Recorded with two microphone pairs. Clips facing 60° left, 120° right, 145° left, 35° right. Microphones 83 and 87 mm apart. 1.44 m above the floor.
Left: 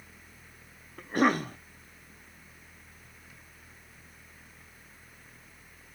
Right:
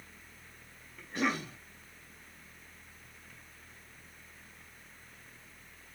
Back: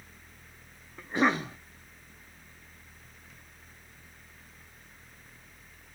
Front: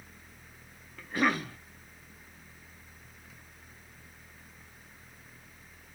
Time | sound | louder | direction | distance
1.0 | a cough | left 8 dB, back 2 dB | 85° left | 0.6 m